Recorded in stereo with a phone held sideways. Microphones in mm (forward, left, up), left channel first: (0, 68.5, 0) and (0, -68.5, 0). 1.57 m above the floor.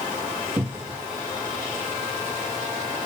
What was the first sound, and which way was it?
A cupboard door, 10° right (ahead or behind).